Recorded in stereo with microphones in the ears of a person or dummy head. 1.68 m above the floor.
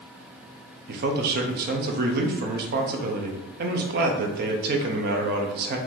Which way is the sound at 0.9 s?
55° right (ahead or behind).